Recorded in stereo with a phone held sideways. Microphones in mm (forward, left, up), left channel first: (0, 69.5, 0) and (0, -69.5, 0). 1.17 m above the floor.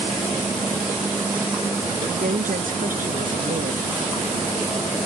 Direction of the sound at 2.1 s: 70° right (ahead or behind).